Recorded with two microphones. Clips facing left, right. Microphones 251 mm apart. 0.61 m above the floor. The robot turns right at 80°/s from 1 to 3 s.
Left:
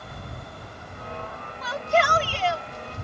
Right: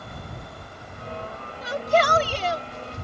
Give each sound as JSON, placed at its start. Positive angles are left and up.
{"t": 1.6, "sound": "a shout", "azimuth_deg": -140}